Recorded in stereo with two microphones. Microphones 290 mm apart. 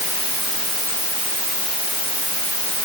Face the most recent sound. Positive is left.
No sound to turn to.